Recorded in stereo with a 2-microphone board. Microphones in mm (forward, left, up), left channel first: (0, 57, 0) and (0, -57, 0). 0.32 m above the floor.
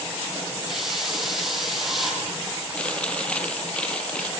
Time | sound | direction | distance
0.7 | a hiss | centre (ahead or behind) | 6.5 m
2.8 | chewing | 10° left (ahead or behind) | 2 m